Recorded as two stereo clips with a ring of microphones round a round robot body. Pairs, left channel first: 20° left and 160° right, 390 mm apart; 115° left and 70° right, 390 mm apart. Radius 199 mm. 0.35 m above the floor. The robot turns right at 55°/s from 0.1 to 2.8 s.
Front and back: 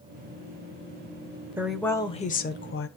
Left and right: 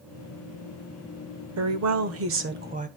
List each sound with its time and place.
1.6 s a woman speaking: 75° right, 1.3 m; by 2.9 s 10° right, 1.3 m